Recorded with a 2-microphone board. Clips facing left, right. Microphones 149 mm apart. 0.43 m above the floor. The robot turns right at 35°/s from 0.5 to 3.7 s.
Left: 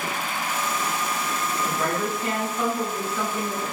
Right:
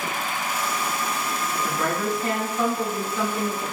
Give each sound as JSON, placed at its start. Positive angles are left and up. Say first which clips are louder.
{"t": 1.6, "sound": "a woman speaking", "louder": "right 1 dB", "side_deg": 10, "distance_m": 1.2}